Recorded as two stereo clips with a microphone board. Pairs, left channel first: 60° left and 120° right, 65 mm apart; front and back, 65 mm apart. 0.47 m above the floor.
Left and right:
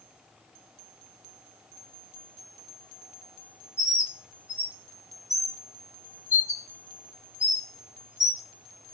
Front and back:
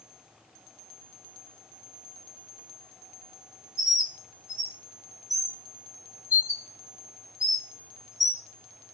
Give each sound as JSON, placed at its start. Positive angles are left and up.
{"t": 3.8, "sound": "a bird", "azimuth_deg": 25, "distance_m": 2.0}